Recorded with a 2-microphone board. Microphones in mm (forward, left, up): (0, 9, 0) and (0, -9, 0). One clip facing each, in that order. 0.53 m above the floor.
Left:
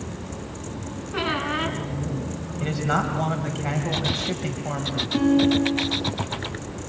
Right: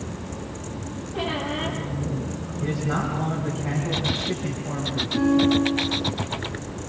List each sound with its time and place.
1.1 s a squeak: 70° left (ahead or behind), 3.5 m
2.6 s a man speaking: 50° left (ahead or behind), 3 m
5.1 s a guitar: 65° left (ahead or behind), 6 m